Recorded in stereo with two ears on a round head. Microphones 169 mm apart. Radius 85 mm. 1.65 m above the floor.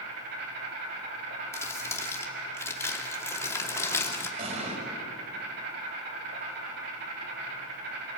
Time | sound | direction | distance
0.0 | an insect | 60° right (ahead or behind) | 6.5 m
1.5 | crumpling | 15° left (ahead or behind) | 2.5 m
4.4 | an explosion | 40° right (ahead or behind) | 5.5 m